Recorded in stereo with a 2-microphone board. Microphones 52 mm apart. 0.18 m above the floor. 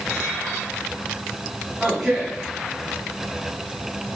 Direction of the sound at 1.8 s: 5° right (ahead or behind).